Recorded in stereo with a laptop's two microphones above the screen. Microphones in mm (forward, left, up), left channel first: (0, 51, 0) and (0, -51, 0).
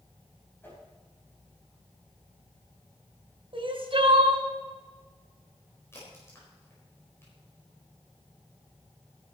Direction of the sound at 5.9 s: 25° left (ahead or behind).